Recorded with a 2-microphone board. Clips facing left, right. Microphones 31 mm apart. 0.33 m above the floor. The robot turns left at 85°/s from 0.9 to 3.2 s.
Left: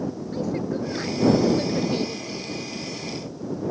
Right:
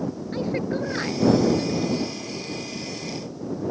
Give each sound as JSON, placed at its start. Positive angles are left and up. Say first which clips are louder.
{"t": 0.3, "sound": "a woman speaking", "louder": "right 1 dB", "side_deg": -35}